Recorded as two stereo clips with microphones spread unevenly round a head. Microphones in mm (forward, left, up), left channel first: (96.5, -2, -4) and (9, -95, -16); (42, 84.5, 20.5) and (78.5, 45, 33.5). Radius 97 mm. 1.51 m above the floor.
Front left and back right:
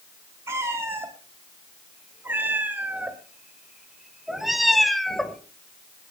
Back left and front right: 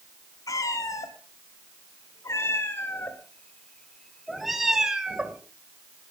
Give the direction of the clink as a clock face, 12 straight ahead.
I don't hear a clink.